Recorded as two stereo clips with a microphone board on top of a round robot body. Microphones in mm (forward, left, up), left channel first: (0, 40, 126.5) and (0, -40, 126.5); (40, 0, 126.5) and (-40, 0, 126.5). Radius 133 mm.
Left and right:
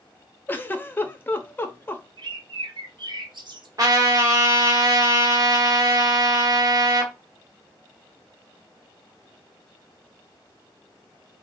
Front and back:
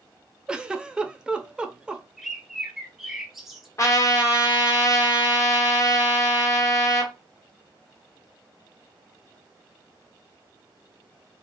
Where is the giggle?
115° left, 0.7 m.